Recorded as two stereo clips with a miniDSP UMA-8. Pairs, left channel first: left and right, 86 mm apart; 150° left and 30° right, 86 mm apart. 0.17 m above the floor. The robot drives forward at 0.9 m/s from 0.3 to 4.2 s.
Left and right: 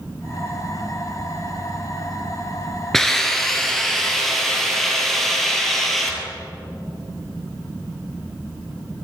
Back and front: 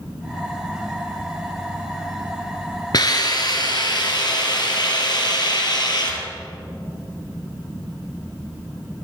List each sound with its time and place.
2.9 s a hiss: 175° left, 1.8 m